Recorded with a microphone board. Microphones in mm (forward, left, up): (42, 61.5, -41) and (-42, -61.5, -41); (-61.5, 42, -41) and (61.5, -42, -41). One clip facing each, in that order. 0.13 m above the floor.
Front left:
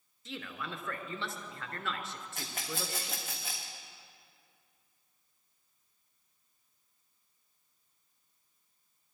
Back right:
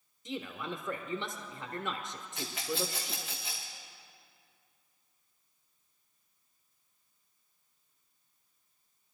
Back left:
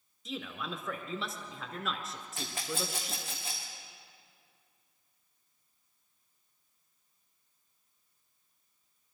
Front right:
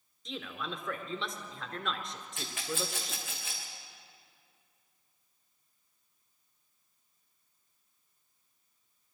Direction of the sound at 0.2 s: 135° right.